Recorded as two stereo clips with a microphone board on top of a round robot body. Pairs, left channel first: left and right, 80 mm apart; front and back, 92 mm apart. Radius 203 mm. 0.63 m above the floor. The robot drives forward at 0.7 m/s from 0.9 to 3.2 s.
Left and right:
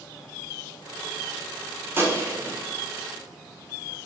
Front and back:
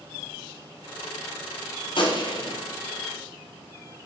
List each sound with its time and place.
2.0 s a gunshot: 30° right, 1.7 m; by 2.6 s 40° right, 1.3 m